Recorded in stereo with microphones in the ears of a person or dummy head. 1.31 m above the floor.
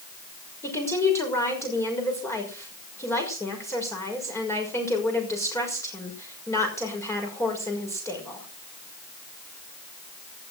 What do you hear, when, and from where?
0.6 s a woman speaking: 10° left (ahead or behind), 6 m